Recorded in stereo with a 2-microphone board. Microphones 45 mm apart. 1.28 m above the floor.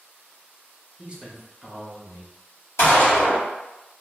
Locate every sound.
1.0 s a man speaking: 30° right (ahead or behind), 0.7 m; by 2.3 s 30° left (ahead or behind), 1.2 m
2.8 s a gunshot: 85° left, 1.4 m